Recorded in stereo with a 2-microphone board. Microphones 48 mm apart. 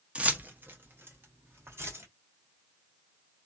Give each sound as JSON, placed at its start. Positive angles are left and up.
{"t": 0.1, "sound": "keys jangling", "side_deg": -25, "distance_m": 0.6}